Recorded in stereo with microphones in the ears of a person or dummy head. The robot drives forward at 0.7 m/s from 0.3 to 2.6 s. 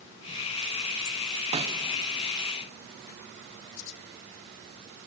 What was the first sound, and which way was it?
A snare drum, 30° right (ahead or behind).